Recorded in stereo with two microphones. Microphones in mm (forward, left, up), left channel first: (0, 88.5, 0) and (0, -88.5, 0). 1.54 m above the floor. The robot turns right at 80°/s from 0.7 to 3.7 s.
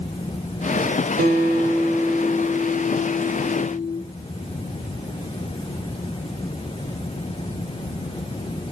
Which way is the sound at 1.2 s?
85° right.